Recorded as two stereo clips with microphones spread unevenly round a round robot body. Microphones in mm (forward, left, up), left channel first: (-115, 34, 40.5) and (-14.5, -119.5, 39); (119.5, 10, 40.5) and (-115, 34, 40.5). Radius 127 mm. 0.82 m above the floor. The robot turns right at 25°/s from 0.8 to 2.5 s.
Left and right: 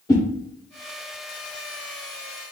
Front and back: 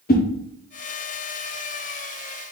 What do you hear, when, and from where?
0.1 s a whoosh: 45° left, 0.9 m